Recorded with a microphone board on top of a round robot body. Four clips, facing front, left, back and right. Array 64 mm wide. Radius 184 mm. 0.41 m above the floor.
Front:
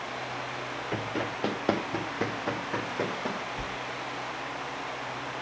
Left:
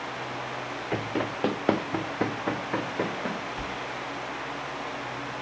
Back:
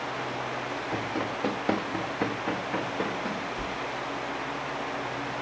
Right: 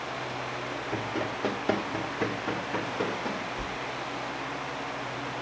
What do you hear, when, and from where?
0.9 s running footsteps: 70° left, 0.6 m
3.6 s a sliding door: 40° left, 1.3 m